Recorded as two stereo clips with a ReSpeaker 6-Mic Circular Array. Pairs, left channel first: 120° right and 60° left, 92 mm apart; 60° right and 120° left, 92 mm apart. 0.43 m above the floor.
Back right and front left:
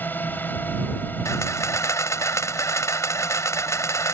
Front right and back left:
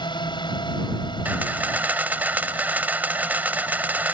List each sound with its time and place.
0.0 s a drone: 55° right
1.2 s a camera shutter: 170° right